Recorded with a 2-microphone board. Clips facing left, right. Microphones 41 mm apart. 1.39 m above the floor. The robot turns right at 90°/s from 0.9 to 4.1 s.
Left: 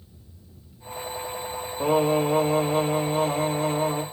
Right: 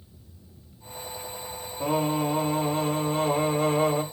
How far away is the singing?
About 2.5 m.